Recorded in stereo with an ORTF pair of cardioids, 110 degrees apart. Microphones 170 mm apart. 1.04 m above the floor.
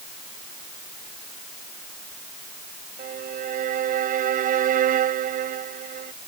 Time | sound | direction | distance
3.0 | a violin | 55° right | ?